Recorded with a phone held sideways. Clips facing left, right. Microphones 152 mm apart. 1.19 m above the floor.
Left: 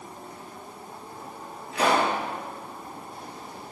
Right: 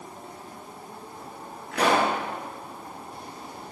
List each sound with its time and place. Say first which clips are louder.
1.7 s a pop: right 1 dB; 80° right, 7 m